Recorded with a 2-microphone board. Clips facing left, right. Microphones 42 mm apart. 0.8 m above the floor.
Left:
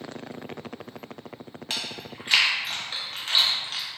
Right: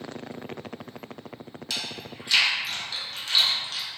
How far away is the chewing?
About 0.5 m.